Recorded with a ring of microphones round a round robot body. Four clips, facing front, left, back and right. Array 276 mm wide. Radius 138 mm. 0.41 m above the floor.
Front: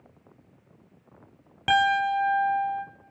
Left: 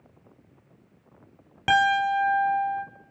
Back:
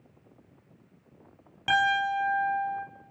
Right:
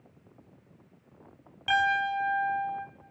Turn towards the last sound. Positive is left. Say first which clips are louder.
# left 5 dB, front 3 dB
turn(degrees=65)